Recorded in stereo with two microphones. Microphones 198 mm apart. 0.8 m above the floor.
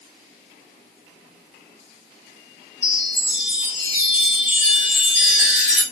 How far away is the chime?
About 1.0 m.